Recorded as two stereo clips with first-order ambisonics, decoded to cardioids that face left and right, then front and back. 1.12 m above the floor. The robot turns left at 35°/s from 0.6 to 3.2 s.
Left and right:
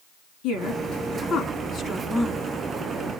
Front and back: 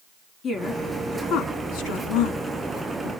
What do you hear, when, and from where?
0.4 s a woman speaking: 65° left, 3 m; by 3.1 s 25° right, 3 m